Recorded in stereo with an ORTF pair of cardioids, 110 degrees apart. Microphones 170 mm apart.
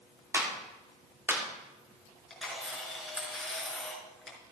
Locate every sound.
0.3 s a clap: 15° right, 3.5 m
2.3 s a camera shutter: 5° left, 4.5 m